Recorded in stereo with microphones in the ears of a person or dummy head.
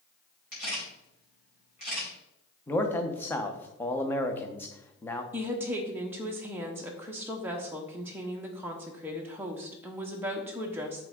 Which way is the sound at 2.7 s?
10° left (ahead or behind).